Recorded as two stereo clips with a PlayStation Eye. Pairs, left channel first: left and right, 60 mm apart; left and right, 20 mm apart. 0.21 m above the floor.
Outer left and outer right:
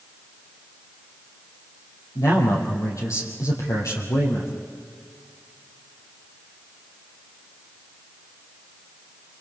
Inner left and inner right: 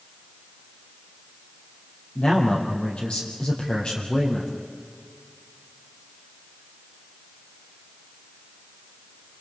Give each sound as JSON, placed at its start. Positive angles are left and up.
{"t": 2.1, "sound": "a man speaking", "side_deg": 65, "distance_m": 6.0}